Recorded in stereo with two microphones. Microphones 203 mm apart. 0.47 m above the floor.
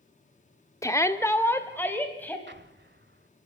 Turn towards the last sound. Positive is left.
turn(degrees=-60)  # may be behind; listen again after turning